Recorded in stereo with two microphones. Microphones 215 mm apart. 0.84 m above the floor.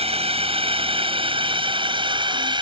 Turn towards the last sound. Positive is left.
turn(degrees=-20)  # may be behind; listen again after turning